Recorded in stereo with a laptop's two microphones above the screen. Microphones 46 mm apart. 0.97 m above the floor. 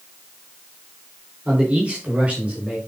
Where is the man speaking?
25° right (ahead or behind), 3.5 m.